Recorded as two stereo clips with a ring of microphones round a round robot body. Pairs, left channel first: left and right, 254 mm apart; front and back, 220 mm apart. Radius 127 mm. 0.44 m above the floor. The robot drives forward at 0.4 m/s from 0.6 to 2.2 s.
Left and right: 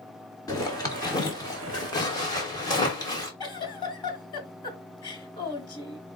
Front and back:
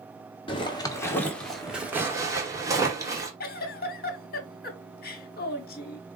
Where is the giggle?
25° left, 0.8 m.